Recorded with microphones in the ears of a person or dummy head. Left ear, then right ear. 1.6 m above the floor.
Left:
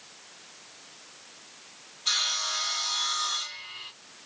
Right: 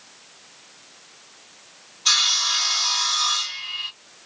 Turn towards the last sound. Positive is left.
turn(degrees=-60)  # may be behind; listen again after turning